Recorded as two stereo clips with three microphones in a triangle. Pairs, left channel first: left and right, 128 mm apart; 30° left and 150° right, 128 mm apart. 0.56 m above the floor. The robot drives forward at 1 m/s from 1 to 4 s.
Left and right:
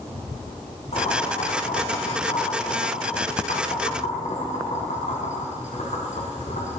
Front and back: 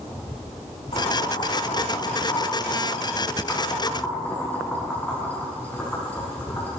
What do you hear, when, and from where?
0.9 s boiling: 70° left, 4.5 m; by 6.8 s 110° left, 4.5 m